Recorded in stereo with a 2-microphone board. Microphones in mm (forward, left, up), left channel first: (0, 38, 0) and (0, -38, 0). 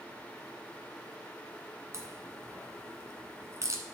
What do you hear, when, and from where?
1.9 s a crack: 45° right (ahead or behind), 1.1 m